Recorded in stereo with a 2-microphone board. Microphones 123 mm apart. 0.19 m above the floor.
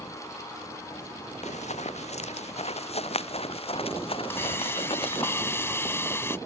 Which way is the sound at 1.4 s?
70° left (ahead or behind).